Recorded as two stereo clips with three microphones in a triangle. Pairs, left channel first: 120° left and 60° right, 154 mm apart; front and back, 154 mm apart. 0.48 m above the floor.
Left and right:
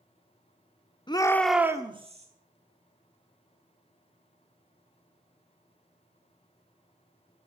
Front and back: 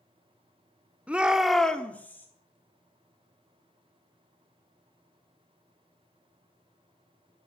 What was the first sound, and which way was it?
A shout, 105° left.